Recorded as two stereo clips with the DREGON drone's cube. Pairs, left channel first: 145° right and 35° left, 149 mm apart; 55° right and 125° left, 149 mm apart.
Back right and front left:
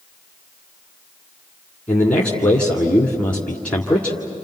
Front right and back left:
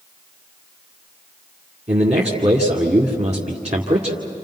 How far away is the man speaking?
About 2 m.